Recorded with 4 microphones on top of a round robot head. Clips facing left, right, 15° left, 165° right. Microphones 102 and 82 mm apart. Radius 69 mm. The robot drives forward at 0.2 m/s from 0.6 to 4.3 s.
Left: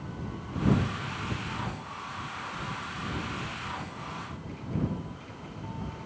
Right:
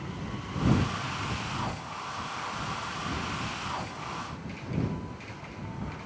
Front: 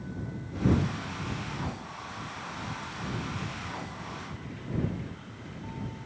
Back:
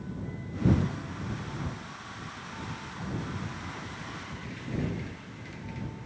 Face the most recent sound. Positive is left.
No sound to turn to.